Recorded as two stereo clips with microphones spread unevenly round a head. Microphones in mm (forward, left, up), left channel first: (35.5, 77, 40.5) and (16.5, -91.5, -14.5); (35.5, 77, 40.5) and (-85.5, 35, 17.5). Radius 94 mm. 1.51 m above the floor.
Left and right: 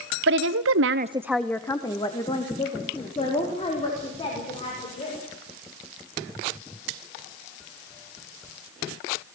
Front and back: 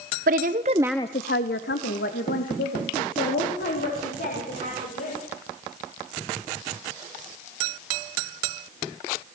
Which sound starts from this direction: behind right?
A woman speaking, at 0.3 s.